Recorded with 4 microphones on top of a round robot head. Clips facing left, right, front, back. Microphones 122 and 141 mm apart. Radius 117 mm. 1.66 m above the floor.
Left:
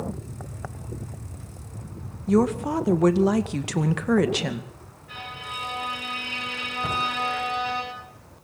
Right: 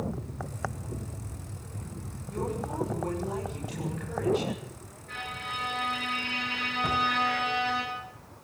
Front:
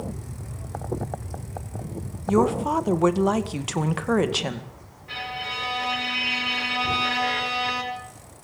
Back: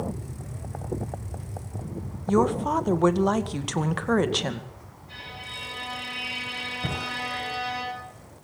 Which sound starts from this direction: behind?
A cupboard door, at 6.8 s.